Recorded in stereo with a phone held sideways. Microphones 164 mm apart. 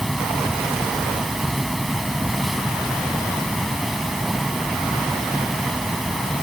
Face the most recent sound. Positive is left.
turn(degrees=0)  # may be behind; listen again after turning